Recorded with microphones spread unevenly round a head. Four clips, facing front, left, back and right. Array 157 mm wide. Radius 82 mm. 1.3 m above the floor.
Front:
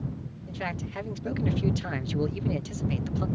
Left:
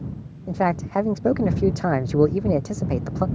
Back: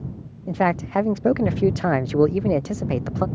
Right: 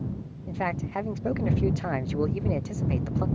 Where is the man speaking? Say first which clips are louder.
Left 8 dB, back 14 dB; 125° left.